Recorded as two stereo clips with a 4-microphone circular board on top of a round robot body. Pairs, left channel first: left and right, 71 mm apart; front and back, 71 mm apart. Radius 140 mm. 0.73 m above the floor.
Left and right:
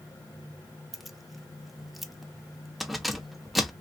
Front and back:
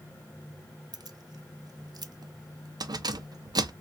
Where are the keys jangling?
Straight behind, 0.5 m.